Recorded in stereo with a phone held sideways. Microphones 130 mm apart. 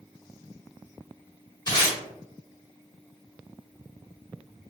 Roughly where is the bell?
I don't hear a bell.